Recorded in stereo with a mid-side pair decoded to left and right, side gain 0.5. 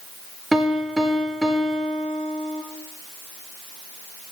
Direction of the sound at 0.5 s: 15° right.